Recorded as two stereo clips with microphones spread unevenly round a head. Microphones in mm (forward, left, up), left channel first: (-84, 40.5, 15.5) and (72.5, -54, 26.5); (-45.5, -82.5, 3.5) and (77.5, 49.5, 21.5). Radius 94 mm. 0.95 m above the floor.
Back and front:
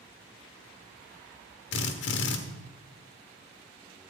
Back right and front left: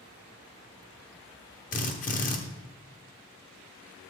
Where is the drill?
175° left, 1.1 m.